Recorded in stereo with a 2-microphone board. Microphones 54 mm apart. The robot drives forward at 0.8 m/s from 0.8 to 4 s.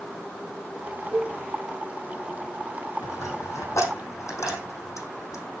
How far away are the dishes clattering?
About 2.5 m.